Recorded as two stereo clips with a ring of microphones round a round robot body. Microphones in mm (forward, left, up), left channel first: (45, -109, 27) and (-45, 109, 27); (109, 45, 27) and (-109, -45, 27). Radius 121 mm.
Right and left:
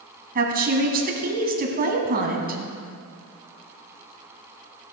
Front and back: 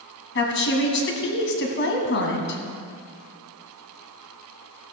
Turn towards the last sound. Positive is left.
turn(degrees=60)